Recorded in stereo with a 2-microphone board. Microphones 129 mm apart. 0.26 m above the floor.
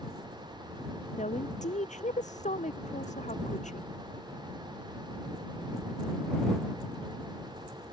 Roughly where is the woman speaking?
Left.